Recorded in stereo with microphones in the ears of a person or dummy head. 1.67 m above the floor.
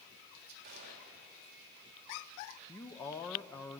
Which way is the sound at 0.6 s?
45° right (ahead or behind).